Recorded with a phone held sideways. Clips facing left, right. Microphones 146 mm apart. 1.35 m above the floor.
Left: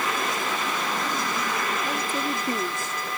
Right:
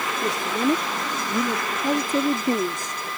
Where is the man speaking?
90° right; by 2.9 s 15° right (ahead or behind).